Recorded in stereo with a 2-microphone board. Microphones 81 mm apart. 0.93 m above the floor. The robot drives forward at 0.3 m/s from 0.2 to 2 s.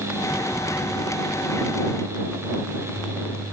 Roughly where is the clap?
I don't hear a clap.